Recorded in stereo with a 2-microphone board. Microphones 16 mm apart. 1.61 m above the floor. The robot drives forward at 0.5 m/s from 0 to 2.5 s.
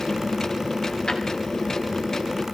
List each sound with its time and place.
1.1 s a drawer: 60° left (ahead or behind), 2 m